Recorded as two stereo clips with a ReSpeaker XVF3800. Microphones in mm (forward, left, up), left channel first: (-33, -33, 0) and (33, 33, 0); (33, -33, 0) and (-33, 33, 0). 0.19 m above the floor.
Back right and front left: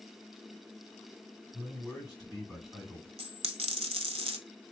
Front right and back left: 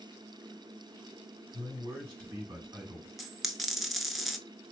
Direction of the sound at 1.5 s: 135° left.